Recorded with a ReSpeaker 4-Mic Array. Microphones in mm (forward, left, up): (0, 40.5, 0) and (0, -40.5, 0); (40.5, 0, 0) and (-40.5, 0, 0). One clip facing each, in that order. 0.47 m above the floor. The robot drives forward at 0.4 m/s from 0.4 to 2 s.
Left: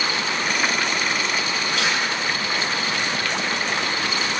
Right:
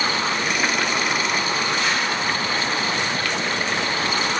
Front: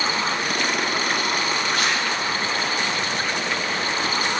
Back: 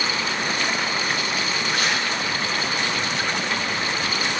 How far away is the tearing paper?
About 5 m.